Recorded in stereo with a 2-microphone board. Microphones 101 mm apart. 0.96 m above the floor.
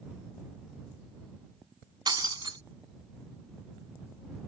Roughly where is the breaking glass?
Right.